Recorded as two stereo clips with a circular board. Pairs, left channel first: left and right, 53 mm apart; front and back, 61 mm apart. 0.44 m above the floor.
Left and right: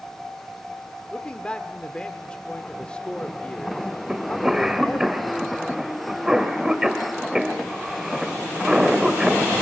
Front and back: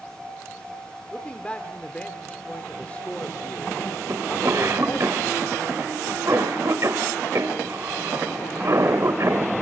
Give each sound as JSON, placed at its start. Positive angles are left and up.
{"t": 1.1, "sound": "a man speaking", "azimuth_deg": 45, "distance_m": 1.2}
{"t": 4.1, "sound": "a cough", "azimuth_deg": -165, "distance_m": 1.9}